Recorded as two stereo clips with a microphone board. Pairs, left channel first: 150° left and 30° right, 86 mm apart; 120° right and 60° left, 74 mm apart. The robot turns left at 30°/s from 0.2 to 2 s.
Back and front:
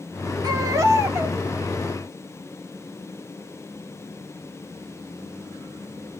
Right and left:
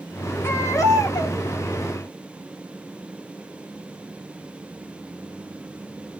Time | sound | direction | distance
0.4 | a baby crying | 70° right | 1.5 m